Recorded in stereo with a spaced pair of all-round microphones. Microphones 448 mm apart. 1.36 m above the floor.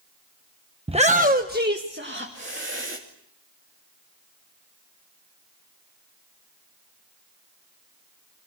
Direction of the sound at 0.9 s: 10° right (ahead or behind).